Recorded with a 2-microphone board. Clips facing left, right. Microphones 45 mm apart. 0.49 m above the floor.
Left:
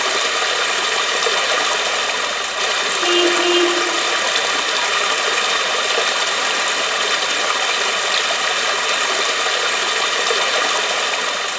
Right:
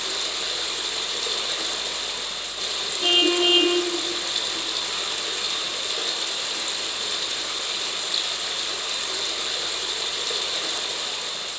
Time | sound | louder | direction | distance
0.0 | running water | left 12 dB | 85° left | 0.7 m
3.0 | a car horn | left 3 dB | 25° right (ahead or behind) | 8.5 m